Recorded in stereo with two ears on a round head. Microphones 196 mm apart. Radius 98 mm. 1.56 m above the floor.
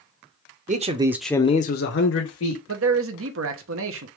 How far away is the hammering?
No hammering in this recording.